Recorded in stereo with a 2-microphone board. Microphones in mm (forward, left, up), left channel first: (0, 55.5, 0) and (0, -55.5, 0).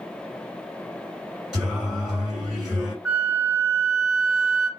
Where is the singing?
10° right (ahead or behind), 2.0 m.